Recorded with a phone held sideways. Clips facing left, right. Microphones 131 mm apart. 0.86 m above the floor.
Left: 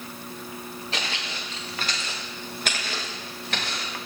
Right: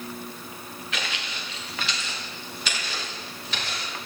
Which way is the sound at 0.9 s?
30° left (ahead or behind).